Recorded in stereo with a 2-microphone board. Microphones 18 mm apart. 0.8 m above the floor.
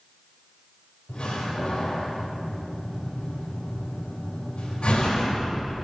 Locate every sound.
1.1 s a door slam: 65° left (ahead or behind), 2 m